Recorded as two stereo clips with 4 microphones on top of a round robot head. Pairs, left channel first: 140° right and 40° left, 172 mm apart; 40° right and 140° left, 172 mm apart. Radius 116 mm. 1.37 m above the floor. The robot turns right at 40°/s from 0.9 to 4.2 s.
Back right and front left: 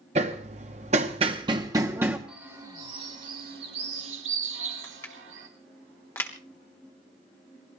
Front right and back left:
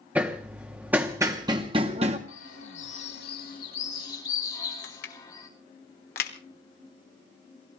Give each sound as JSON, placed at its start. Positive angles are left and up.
{"t": 0.1, "sound": "hammering", "azimuth_deg": 65, "distance_m": 0.9}
{"t": 2.3, "sound": "a bird", "azimuth_deg": -45, "distance_m": 3.0}
{"t": 4.8, "sound": "crushing", "azimuth_deg": -65, "distance_m": 1.3}